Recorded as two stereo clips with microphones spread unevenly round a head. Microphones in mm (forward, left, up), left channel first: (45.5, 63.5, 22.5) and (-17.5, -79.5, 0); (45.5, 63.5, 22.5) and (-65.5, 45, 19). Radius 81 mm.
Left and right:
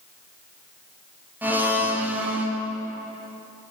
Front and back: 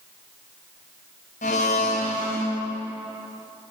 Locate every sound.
1.4 s a blender: 35° right, 0.8 m